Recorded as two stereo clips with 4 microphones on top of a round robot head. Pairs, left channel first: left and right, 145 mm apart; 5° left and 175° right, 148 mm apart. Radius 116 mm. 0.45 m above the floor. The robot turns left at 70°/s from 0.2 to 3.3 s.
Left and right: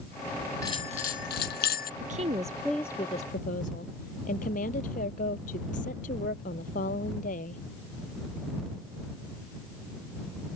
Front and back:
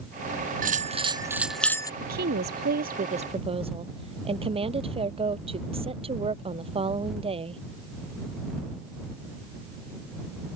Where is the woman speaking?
135° right; by 7.6 s 135° left.